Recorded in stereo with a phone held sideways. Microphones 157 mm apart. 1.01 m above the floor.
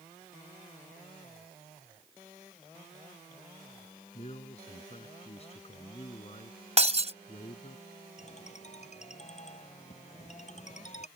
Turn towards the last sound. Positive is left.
turn(degrees=45)  # may be behind; listen again after turning